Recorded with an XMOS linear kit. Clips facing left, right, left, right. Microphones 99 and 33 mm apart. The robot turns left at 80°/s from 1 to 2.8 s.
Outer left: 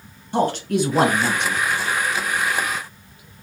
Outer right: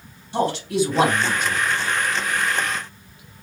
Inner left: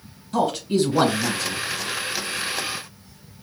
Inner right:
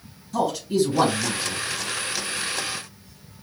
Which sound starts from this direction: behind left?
A man speaking, at 0.3 s.